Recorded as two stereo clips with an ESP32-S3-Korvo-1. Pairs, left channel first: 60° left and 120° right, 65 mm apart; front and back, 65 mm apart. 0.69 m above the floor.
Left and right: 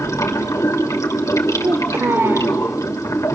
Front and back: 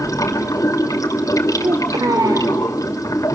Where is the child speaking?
170° right, 1.8 m.